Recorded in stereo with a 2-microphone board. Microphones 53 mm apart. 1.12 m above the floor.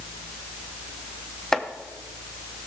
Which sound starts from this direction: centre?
Chopping, at 1.5 s.